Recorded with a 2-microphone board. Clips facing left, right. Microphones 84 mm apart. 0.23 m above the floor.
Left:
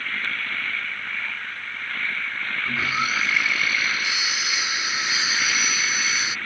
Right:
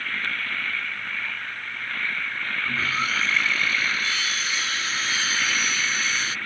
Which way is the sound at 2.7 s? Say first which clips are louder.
Left 2 dB; 15° left (ahead or behind).